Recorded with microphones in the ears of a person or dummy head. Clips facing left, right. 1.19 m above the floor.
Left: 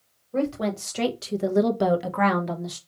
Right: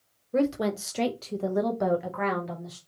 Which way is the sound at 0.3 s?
20° right (ahead or behind).